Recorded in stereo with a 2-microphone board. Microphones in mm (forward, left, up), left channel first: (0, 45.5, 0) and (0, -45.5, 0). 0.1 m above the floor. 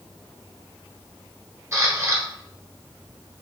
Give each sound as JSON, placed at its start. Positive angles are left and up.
{"t": 1.7, "sound": "a camera shutter", "side_deg": -30, "distance_m": 1.4}